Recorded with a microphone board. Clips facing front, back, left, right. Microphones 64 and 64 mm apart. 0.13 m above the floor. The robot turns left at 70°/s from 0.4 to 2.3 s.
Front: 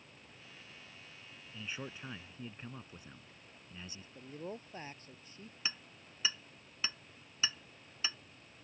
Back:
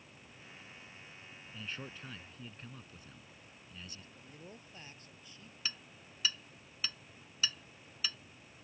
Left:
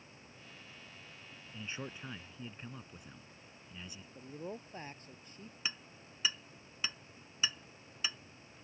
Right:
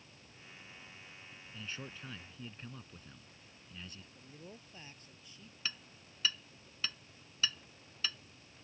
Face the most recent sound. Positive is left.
turn(degrees=35)